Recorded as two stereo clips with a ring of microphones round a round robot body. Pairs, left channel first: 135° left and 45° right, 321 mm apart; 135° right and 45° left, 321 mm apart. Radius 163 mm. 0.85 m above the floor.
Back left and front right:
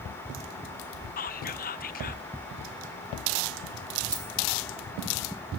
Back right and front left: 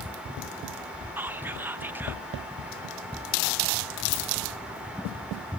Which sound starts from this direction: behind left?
Whispering, at 1.2 s.